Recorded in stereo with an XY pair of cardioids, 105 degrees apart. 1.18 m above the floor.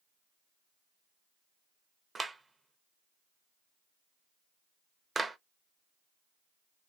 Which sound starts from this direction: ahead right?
A clap, at 2.1 s.